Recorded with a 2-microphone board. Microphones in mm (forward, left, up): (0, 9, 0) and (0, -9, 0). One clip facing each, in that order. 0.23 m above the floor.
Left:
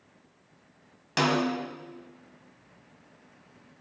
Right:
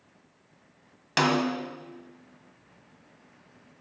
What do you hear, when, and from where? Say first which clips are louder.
1.2 s a snare drum: right 1 dB; 20° right (ahead or behind), 1.5 m